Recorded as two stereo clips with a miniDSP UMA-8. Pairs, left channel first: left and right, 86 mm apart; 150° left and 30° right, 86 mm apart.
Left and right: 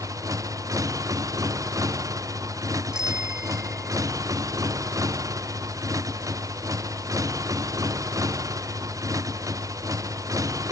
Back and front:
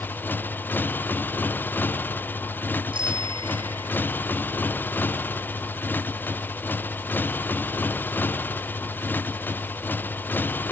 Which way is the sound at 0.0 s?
140° right.